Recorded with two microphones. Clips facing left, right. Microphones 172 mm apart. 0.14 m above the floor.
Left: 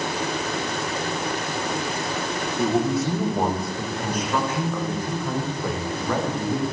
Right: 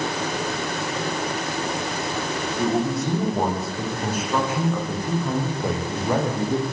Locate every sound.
2.6 s a man speaking: 5° left (ahead or behind), 9.5 m; by 6.6 s 25° right (ahead or behind), 9 m